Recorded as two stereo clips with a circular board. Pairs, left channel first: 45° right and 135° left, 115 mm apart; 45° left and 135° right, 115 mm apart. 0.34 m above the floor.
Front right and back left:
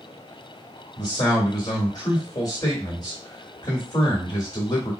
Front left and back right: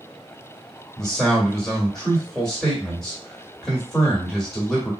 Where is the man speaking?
40° right, 1.8 m.